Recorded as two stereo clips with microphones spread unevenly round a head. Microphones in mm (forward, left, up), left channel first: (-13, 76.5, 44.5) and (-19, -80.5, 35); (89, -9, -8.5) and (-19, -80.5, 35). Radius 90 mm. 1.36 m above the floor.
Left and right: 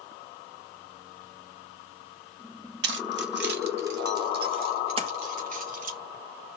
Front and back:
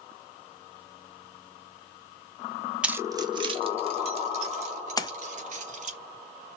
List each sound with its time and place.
2.8 s keys jangling: 85° right, 0.8 m; by 6.0 s 125° right, 4.5 m
5.0 s a splash: 35° right, 0.9 m